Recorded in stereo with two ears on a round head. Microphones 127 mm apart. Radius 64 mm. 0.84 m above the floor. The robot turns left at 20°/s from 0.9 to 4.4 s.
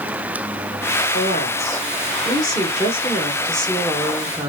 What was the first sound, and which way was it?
A woman speaking, 55° left.